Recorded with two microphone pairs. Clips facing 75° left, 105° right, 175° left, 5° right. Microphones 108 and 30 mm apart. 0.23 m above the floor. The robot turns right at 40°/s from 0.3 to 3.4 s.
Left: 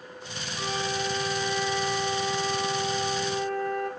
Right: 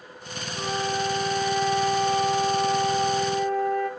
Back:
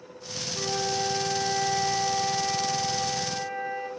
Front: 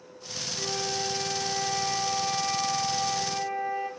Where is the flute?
170° left, 7.5 m; by 3.9 s 80° right, 7.5 m.